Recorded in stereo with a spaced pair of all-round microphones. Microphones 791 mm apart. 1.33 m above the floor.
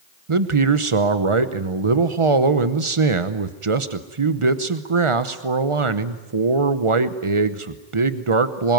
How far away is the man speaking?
About 0.9 m.